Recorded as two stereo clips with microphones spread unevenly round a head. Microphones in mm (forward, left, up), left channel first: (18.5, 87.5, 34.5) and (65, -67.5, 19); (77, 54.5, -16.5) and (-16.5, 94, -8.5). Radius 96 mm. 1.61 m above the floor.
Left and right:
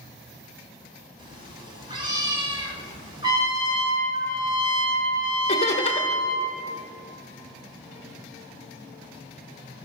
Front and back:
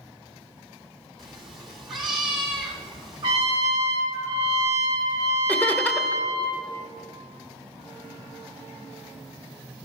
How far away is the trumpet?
About 1.2 m.